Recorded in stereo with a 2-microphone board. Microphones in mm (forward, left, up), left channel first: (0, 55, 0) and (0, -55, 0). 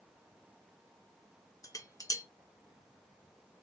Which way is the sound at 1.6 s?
30° left (ahead or behind).